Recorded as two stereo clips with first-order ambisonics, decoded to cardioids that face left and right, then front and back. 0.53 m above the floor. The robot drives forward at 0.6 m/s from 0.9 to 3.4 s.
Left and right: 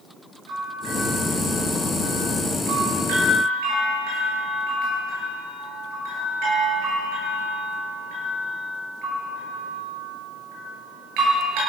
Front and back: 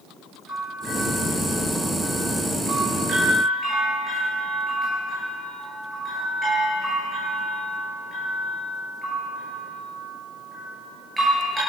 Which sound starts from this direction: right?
A bell, at 0.5 s.